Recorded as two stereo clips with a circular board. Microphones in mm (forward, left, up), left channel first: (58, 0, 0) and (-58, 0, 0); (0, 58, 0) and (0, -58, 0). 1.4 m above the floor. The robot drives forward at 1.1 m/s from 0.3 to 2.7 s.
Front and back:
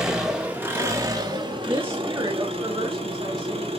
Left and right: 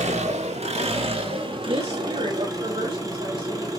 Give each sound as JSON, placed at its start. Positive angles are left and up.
{"t": 0.0, "sound": "an engine running", "azimuth_deg": -95, "distance_m": 1.9}
{"t": 1.7, "sound": "a woman speaking", "azimuth_deg": -105, "distance_m": 2.0}